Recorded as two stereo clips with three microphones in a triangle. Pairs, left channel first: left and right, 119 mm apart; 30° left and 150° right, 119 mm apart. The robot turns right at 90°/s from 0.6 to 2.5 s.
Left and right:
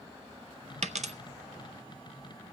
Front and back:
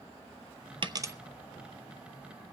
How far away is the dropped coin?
About 0.5 m.